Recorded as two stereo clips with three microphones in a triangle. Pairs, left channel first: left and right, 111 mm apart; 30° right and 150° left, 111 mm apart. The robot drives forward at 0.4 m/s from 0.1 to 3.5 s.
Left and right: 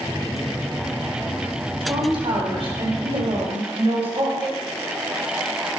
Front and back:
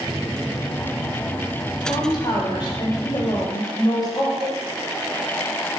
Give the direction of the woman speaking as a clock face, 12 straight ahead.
2 o'clock.